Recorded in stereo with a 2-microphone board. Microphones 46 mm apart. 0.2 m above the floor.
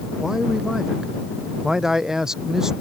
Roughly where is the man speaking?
Centre.